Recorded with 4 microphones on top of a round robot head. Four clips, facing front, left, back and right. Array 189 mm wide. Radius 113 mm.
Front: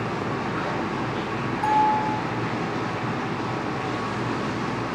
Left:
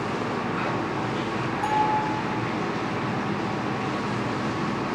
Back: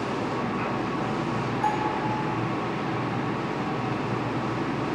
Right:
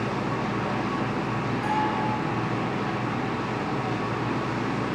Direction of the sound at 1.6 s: 35° left.